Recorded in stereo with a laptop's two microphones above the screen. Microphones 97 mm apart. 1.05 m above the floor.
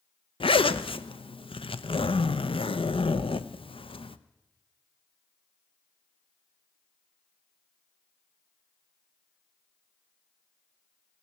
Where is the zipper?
65° left (ahead or behind), 0.5 m.